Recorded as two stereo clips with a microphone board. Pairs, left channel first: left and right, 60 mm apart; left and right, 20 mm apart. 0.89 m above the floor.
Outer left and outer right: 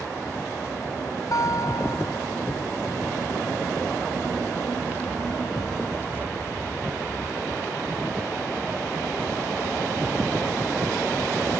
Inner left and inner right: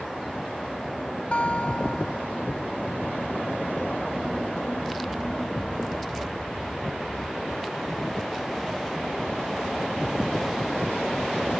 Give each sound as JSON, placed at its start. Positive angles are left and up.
{"t": 1.3, "sound": "a guitar", "side_deg": 65}